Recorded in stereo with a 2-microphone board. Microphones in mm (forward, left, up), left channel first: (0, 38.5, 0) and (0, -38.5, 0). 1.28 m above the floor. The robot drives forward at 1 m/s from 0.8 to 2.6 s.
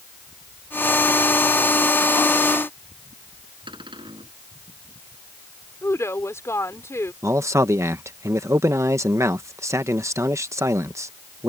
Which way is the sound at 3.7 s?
85° right.